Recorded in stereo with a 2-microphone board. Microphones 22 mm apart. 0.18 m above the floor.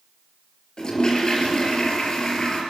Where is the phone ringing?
No phone ringing in this recording.